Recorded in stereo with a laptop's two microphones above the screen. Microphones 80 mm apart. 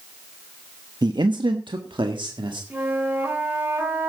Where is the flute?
25° right (ahead or behind), 3.5 m.